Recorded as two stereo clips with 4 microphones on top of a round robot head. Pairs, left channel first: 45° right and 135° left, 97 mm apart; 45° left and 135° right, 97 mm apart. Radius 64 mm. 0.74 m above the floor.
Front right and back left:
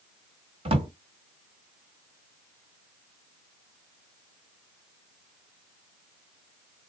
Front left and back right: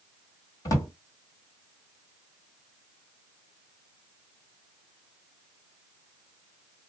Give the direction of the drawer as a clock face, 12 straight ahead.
9 o'clock.